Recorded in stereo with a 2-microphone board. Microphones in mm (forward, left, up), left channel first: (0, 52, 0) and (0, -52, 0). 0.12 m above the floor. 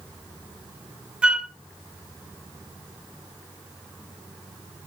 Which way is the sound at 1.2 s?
10° right (ahead or behind).